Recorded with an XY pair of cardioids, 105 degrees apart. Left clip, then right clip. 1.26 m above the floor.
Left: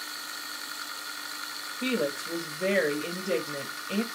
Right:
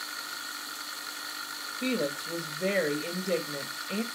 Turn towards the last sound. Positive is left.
turn(degrees=5)